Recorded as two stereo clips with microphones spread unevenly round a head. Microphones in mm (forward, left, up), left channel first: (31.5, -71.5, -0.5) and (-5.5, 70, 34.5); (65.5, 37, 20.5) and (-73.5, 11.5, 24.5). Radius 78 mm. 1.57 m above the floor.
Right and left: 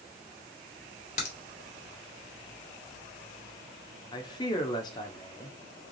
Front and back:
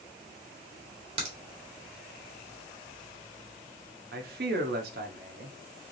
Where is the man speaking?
140° right, 0.9 m.